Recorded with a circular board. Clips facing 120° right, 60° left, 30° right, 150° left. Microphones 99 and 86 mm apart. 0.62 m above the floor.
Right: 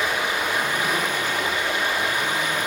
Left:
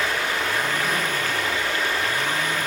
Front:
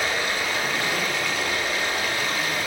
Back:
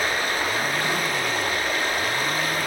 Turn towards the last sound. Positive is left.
turn(degrees=175)